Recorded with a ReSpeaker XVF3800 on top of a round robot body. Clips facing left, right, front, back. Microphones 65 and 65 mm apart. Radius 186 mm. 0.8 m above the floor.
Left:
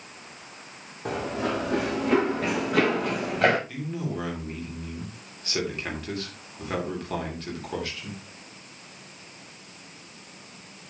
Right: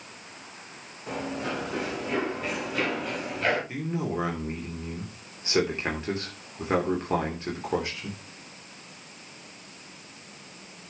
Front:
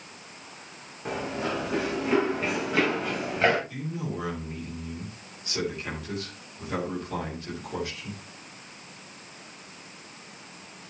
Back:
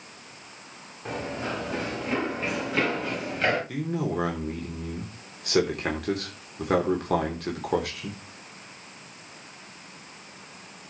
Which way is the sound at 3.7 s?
155° right.